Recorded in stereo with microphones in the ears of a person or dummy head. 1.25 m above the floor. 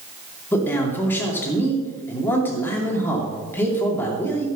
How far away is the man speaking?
About 2.5 m.